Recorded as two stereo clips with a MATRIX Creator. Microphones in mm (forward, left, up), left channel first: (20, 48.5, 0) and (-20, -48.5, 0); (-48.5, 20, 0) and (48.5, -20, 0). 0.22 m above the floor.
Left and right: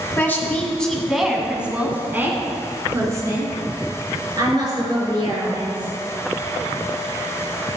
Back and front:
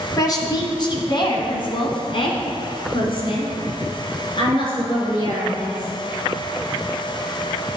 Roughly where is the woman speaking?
Behind left.